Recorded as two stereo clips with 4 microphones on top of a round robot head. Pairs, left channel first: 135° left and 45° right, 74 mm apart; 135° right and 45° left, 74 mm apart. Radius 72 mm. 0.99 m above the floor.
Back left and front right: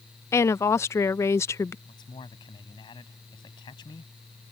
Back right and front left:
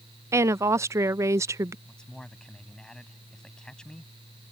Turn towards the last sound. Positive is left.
turn(degrees=145)